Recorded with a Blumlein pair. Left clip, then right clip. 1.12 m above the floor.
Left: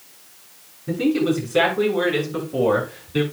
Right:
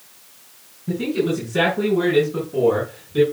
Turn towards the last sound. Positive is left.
turn(degrees=35)